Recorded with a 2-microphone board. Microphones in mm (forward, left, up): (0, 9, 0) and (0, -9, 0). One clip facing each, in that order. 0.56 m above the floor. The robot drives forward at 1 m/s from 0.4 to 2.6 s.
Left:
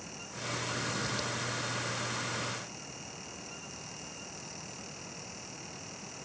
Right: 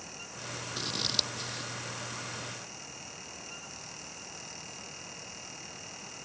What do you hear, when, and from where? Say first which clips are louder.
0.8 s scissors: right 3 dB; 45° right (ahead or behind); by 1.7 s 50° right (ahead or behind)